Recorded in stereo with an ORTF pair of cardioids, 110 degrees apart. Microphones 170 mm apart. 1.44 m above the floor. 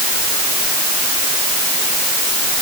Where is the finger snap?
No finger snap in this recording.